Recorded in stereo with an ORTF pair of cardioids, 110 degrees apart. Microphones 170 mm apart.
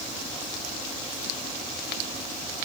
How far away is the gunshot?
I don't hear a gunshot.